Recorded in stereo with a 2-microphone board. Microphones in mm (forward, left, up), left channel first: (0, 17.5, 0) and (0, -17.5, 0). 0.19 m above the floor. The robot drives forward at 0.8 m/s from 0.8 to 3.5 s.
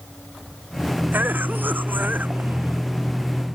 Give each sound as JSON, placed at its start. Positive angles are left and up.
{"t": 1.1, "sound": "a cough", "side_deg": -65}